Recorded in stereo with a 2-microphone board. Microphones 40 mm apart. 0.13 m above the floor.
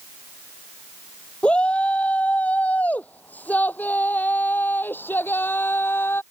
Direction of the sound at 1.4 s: 25° left (ahead or behind).